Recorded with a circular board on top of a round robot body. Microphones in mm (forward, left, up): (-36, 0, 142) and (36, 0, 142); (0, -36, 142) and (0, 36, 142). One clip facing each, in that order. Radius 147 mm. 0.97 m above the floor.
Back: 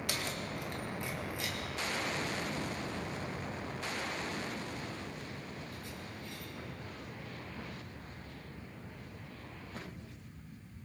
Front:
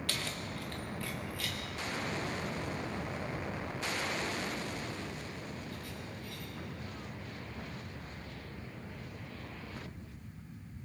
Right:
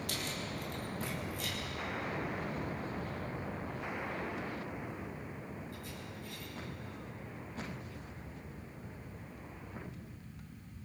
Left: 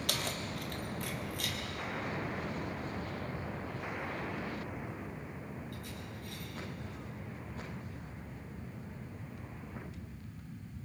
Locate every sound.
0.1 s keys jangling: 105° left, 1.3 m; by 6.5 s 120° left, 4.5 m